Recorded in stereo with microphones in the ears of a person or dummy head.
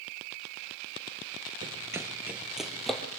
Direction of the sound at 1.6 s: 25° right (ahead or behind).